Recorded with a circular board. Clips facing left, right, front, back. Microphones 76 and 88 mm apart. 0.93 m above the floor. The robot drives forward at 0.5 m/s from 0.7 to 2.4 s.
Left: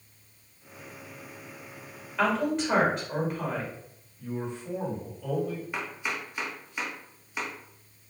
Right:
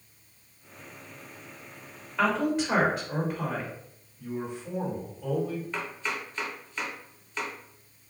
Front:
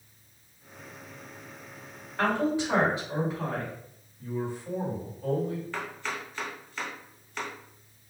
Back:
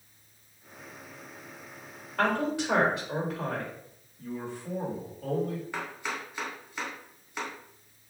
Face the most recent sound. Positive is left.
turn(degrees=135)